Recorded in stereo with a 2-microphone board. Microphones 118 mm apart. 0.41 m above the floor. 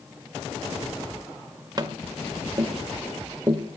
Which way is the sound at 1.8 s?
35° right (ahead or behind).